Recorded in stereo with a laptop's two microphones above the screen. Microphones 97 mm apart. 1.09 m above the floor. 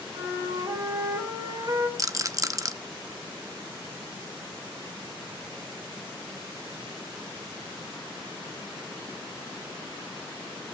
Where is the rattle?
35° right (ahead or behind), 0.8 m.